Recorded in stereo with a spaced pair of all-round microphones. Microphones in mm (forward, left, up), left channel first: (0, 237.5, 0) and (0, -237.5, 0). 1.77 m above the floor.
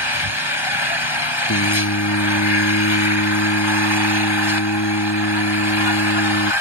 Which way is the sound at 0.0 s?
65° left (ahead or behind).